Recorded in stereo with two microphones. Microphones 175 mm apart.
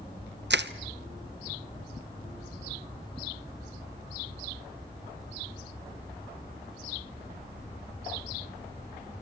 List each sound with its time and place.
0.5 s crushing: 80° right, 0.9 m